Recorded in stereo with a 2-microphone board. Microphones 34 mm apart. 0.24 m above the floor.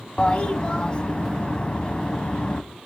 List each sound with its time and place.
0.2 s a toilet flushing: 30° left (ahead or behind), 0.8 m